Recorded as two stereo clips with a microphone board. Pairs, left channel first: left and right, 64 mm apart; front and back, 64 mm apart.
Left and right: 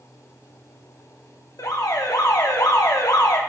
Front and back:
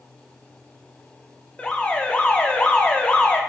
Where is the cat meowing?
No cat meowing in this recording.